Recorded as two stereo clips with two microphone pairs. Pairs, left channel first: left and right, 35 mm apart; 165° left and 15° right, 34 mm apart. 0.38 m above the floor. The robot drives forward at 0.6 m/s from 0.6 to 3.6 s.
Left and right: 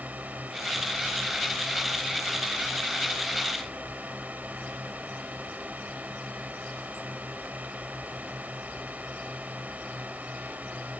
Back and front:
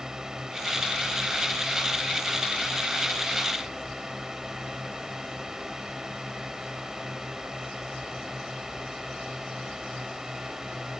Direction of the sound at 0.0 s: 80° right.